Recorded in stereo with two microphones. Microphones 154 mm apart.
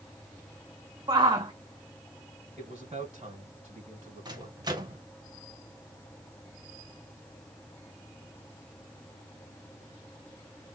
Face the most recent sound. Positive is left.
turn(degrees=-30)  # may be behind; listen again after turning